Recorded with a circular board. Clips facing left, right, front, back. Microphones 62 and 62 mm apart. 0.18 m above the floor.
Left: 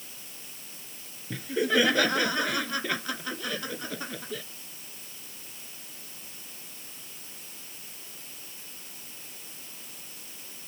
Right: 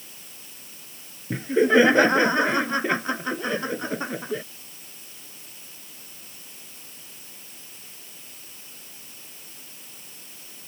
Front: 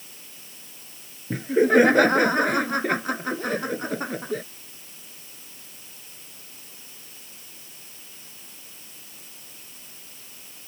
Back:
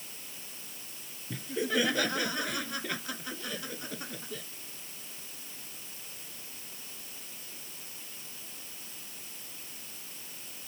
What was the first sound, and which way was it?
Laughter, 35° right.